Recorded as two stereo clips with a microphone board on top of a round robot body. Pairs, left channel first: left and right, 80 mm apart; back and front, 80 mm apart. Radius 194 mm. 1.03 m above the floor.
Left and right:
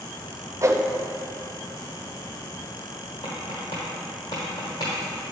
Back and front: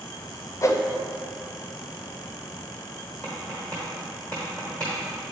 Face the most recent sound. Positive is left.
turn(degrees=105)